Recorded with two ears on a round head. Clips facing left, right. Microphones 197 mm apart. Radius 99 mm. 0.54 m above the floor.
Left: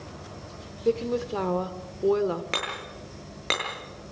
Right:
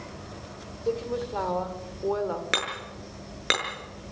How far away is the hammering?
About 7.5 m.